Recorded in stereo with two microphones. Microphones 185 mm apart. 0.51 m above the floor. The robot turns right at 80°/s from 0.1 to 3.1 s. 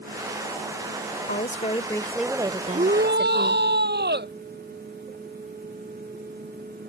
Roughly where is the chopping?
I don't hear chopping.